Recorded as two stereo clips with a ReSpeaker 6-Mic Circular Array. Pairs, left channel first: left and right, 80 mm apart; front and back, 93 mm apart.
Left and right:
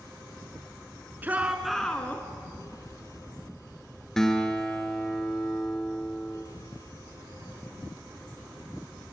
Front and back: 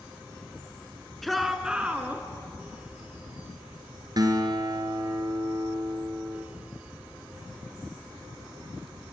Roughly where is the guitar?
Behind.